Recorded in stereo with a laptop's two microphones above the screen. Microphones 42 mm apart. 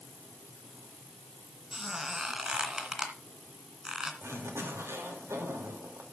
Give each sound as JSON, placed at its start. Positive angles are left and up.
{"t": 1.7, "sound": "a squeak", "side_deg": -15, "distance_m": 2.0}
{"t": 4.2, "sound": "a zipper", "side_deg": -75, "distance_m": 2.5}